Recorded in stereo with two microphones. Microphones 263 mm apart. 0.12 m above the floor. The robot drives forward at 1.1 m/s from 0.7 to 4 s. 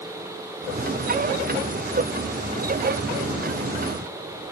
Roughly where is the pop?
I don't hear a pop.